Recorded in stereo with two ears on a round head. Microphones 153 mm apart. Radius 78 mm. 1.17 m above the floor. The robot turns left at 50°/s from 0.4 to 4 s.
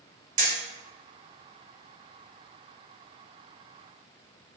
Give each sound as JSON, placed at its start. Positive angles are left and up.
{"t": 0.4, "sound": "hammering", "side_deg": -45, "distance_m": 1.2}